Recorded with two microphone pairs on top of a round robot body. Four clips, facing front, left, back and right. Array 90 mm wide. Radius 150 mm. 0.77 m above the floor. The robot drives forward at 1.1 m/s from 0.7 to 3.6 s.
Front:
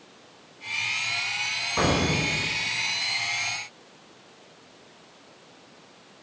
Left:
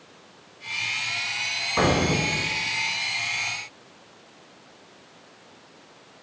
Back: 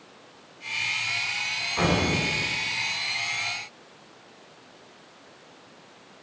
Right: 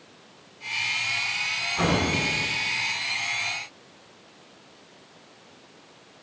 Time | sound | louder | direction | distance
1.8 | an explosion | left 3 dB, even | 50° left | 4.5 m